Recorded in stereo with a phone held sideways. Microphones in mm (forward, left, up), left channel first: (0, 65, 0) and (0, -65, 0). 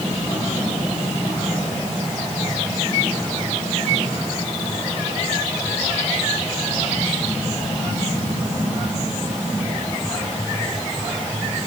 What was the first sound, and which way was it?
Only background noise.